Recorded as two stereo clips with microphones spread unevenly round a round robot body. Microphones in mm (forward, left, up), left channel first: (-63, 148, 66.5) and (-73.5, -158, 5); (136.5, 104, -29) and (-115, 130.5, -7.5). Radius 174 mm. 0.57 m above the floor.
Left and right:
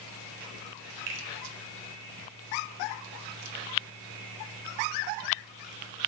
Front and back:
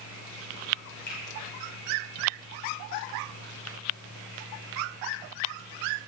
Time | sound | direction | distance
1.1 | a finger snap | 60° right | 2.5 m